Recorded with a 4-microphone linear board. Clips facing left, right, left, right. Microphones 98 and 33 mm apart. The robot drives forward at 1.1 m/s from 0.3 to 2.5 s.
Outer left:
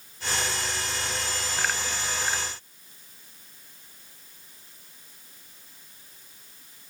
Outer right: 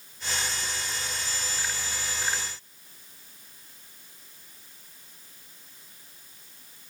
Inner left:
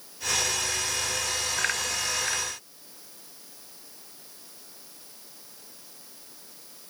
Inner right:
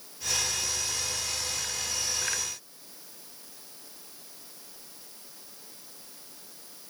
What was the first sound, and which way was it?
Only background noise.